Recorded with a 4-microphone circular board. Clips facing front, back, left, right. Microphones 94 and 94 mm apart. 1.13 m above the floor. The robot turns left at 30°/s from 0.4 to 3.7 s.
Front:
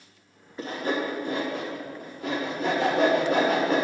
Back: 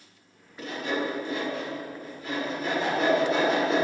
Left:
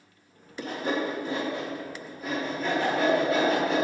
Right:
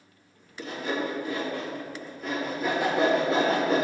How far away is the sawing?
About 1.6 m.